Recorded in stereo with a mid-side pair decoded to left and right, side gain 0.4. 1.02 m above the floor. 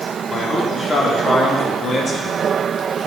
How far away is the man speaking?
About 3 m.